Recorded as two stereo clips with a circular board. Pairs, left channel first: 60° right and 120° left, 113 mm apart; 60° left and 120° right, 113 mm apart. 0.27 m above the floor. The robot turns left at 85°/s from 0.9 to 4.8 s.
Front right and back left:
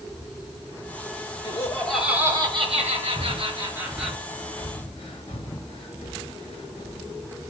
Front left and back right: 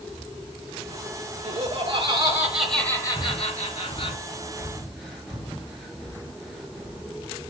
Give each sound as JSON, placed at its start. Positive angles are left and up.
{"t": 1.4, "sound": "laughter", "azimuth_deg": -110, "distance_m": 4.0}
{"t": 3.1, "sound": "breathing", "azimuth_deg": 110, "distance_m": 3.5}